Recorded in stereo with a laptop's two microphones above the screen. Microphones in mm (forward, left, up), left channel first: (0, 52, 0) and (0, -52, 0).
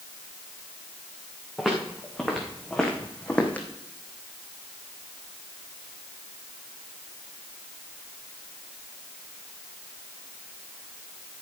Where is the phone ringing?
I don't hear a phone ringing.